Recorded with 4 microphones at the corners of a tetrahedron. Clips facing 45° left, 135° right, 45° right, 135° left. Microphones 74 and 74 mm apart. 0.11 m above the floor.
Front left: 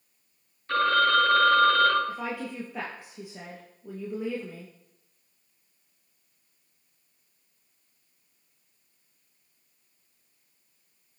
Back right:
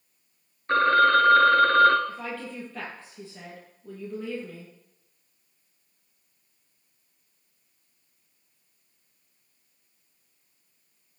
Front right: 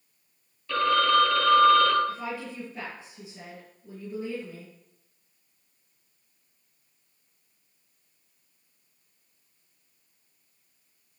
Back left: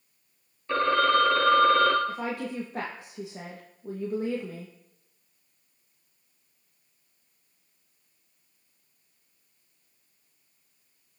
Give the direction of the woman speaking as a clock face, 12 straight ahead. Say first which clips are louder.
Front left 2 dB, back left 2 dB; 8 o'clock.